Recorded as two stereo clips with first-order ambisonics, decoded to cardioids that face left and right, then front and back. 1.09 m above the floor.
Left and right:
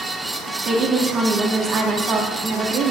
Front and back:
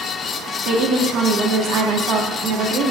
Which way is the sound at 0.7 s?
150° right.